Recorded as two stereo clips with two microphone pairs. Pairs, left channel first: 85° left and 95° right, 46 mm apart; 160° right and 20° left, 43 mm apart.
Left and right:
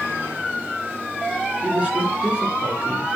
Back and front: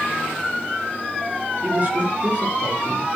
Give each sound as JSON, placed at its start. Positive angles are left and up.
{"t": 1.6, "sound": "a woman speaking", "azimuth_deg": -30, "distance_m": 5.0}